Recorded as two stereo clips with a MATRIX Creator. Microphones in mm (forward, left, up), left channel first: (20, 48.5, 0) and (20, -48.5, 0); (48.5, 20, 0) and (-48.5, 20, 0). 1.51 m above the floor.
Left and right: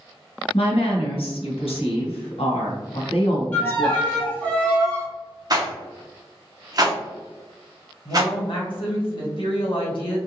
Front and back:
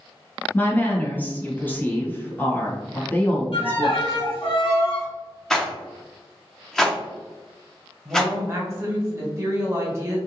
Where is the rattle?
80° right, 0.6 m.